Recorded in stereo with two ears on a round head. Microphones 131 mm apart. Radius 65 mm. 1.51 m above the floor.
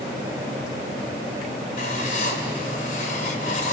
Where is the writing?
65° left (ahead or behind), 4 m.